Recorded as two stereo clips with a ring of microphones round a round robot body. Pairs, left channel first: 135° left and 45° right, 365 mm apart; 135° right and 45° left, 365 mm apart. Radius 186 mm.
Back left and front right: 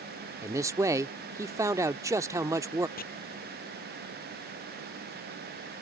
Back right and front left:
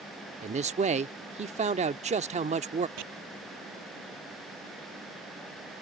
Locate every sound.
0.4 s a man speaking: 20° left
3.0 s chopping: 65° left